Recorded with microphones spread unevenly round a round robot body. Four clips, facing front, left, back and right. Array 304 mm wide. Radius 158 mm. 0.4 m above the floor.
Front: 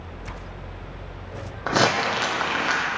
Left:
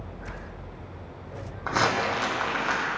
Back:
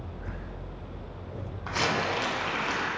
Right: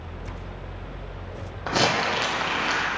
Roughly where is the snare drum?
I don't hear a snare drum.